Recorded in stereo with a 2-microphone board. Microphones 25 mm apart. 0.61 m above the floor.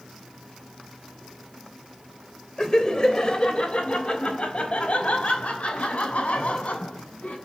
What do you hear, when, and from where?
2.6 s laughter: 25° left (ahead or behind), 3 m; by 7.4 s 65° left (ahead or behind), 6.5 m